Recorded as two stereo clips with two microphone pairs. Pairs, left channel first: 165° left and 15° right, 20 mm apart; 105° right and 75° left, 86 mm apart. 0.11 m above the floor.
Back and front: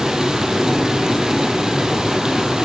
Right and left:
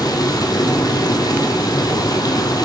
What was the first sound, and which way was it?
Running water, 60° right.